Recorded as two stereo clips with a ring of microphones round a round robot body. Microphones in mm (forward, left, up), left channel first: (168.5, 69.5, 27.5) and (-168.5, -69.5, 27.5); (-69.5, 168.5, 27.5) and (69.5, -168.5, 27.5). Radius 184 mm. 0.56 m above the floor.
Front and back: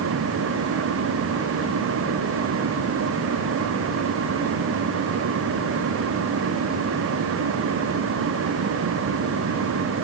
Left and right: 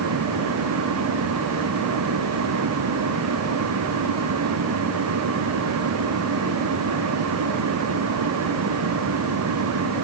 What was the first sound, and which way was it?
Only background noise.